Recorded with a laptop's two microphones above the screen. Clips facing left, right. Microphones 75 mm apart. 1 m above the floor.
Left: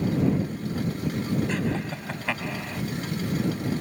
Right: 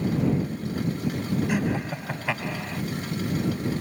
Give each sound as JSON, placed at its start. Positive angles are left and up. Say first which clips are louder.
{"t": 1.5, "sound": "laughter", "louder": "right 2 dB", "side_deg": -10}